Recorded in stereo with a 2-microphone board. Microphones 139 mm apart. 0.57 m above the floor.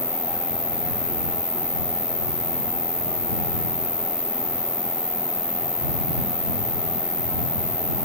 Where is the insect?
80° left.